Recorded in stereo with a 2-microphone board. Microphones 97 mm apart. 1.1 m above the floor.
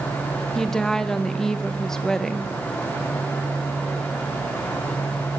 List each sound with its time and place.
0.6 s a woman speaking: 5° left (ahead or behind), 0.8 m